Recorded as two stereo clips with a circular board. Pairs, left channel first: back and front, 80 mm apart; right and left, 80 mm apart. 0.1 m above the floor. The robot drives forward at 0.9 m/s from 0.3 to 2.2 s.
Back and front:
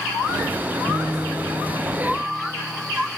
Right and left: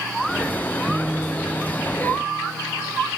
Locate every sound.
0.9 s a guitar: 15° left, 0.7 m; by 2.9 s 175° left, 1.2 m